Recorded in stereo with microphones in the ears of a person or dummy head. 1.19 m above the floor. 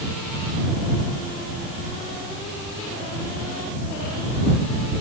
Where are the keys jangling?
I don't hear keys jangling.